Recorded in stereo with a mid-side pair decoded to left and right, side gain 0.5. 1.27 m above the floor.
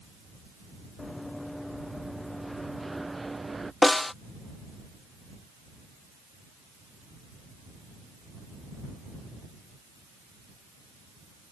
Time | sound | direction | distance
1.0 | running footsteps | 15° left | ?
3.8 | a snare drum | 20° left | ?